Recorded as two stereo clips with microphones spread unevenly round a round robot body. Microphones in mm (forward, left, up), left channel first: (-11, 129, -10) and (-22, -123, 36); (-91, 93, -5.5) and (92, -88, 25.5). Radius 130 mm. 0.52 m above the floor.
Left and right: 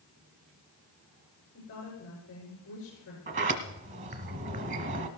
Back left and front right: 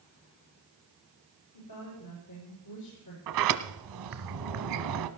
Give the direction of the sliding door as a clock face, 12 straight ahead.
2 o'clock.